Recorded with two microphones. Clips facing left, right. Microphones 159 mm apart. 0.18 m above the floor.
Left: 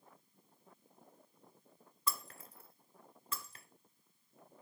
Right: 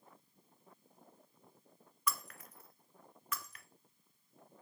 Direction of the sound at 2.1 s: 30° left (ahead or behind).